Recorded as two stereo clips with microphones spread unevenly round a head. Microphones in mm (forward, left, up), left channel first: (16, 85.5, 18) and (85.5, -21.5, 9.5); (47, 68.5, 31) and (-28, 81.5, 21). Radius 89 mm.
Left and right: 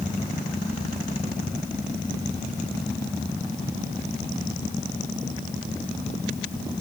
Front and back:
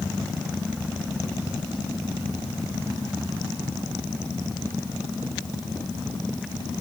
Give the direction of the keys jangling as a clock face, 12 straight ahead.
I don't hear keys jangling.